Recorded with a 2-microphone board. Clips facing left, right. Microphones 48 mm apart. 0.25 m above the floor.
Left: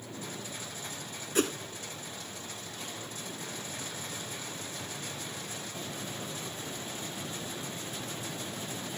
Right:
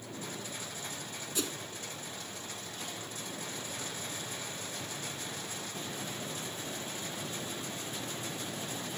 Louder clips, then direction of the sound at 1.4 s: Left 9 dB; 50° left (ahead or behind).